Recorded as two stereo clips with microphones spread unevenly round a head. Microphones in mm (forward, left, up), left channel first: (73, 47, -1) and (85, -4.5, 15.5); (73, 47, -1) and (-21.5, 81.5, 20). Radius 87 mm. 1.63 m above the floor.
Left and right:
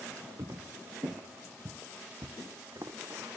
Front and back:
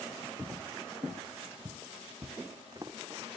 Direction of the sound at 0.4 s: 125° right.